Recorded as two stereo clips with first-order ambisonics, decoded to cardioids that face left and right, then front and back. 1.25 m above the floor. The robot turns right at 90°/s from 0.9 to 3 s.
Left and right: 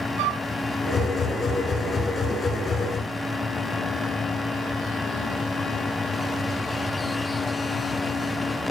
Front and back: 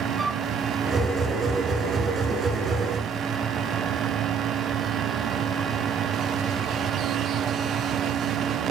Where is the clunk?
I don't hear a clunk.